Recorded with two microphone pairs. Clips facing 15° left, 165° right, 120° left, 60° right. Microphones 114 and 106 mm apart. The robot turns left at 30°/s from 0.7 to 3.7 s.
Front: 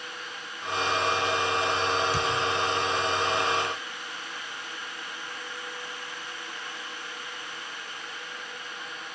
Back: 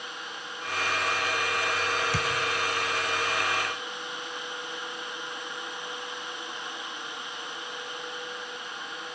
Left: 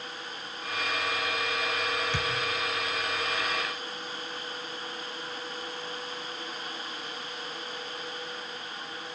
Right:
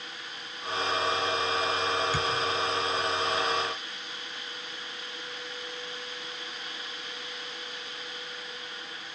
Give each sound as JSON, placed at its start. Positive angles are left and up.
{"t": 2.1, "sound": "a thud", "azimuth_deg": -145, "distance_m": 2.0}